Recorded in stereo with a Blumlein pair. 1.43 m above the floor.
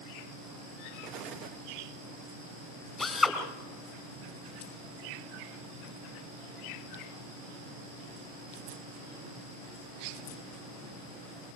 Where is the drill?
5° left, 3 m.